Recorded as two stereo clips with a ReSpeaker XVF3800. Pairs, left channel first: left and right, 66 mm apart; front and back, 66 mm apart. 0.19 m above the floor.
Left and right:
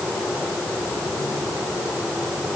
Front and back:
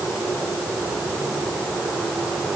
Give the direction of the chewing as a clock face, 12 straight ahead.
No chewing in this recording.